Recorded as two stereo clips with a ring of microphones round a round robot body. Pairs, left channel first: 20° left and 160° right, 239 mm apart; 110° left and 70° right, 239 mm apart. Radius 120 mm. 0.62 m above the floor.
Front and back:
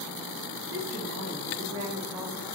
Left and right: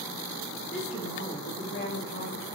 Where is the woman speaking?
175° left, 2.5 m; by 2.5 s 100° left, 1.3 m.